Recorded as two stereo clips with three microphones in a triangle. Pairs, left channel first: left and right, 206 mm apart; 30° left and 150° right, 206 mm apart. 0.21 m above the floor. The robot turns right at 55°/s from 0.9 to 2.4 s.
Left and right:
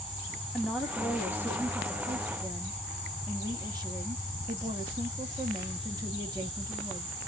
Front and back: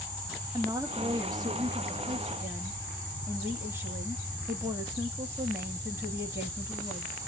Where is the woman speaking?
Straight behind, 1.0 m; by 7.1 s 95° right, 1.0 m.